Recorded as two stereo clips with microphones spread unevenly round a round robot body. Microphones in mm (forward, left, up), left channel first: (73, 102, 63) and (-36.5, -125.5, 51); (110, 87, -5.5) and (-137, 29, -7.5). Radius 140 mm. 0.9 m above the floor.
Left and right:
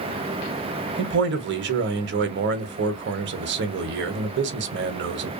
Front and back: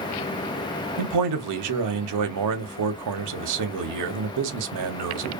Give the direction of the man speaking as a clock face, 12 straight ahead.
5 o'clock.